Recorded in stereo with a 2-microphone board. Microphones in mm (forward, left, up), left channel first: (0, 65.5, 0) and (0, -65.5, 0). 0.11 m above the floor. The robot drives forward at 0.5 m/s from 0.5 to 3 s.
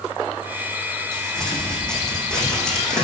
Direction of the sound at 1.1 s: 5° left (ahead or behind).